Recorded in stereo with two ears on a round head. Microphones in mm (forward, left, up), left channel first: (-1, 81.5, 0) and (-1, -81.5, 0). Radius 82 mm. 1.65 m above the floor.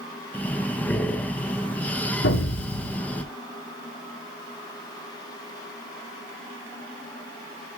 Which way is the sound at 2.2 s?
70° left (ahead or behind).